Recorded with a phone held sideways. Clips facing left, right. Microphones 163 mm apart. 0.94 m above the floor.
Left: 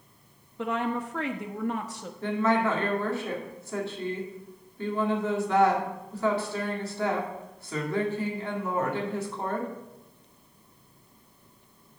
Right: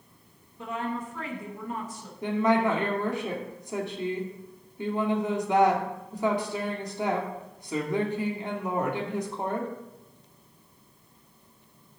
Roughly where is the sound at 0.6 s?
Left.